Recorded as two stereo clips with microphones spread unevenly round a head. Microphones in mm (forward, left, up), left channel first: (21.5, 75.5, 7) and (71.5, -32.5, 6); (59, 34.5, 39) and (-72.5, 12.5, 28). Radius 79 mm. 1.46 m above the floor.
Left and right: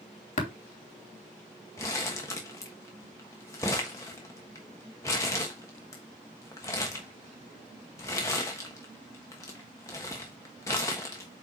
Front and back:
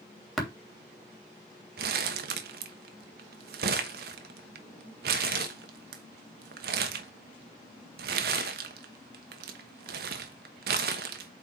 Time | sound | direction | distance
0.4 | tapping | 100° left | 3 m
1.8 | crumpling | 175° right | 1.1 m